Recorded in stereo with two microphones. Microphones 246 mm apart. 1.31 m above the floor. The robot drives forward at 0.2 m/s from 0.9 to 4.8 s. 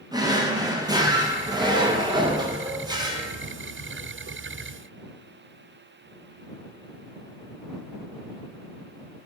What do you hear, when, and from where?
0.1 s a drawer: 15° right (ahead or behind), 0.5 m